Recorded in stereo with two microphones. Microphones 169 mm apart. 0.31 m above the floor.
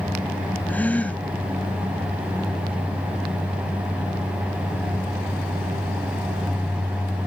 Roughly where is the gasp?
Centre.